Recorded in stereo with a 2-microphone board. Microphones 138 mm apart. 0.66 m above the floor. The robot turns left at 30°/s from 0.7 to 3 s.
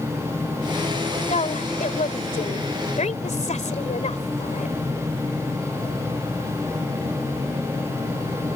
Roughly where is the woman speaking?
Behind left.